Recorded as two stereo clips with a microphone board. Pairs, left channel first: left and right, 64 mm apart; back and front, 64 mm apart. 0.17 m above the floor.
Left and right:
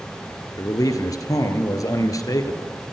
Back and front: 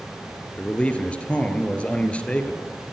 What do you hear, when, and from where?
0.6 s a man speaking: 110° left, 2.5 m